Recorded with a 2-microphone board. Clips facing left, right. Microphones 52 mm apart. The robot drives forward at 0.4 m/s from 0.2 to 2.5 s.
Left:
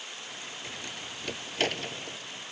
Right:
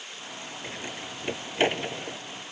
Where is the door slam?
25° right (ahead or behind); by 2.2 s 20° right (ahead or behind).